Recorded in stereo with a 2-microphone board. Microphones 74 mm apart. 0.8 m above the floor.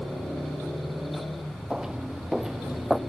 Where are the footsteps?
10° right (ahead or behind); by 3.0 s centre (ahead or behind).